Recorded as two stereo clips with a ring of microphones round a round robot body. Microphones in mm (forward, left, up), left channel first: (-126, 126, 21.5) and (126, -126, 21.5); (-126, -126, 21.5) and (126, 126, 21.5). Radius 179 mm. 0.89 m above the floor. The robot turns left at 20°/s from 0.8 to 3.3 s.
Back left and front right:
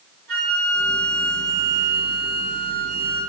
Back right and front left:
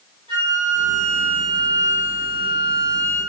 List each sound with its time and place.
0.3 s a flute: 30° right, 3.5 m; by 3.2 s 80° right, 3.5 m